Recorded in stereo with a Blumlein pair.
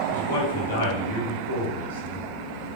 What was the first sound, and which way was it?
A man speaking, 65° left.